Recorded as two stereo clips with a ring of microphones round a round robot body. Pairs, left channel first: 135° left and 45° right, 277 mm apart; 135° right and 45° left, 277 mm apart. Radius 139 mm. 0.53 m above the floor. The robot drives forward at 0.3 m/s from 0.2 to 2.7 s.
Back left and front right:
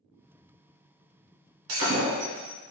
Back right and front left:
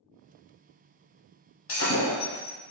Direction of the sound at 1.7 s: 90° right.